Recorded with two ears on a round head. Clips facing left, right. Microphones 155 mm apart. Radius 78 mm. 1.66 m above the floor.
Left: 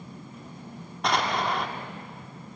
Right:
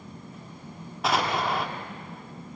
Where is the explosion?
5° right (ahead or behind), 1.5 m.